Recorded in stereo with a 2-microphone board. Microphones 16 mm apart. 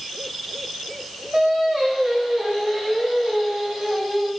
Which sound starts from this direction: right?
Singing, at 1.3 s.